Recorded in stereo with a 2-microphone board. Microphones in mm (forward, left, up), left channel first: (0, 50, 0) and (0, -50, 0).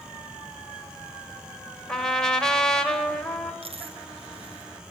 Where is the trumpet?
5° left (ahead or behind), 2.5 m.